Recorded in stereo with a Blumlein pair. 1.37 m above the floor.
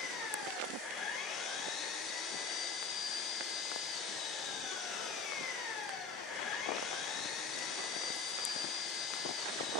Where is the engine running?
30° left, 3.5 m.